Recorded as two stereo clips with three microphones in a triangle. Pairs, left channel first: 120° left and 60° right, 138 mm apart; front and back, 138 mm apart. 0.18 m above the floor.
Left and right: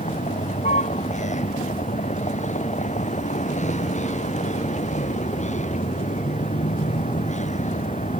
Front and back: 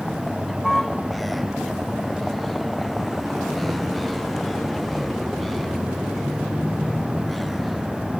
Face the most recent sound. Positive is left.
turn(degrees=90)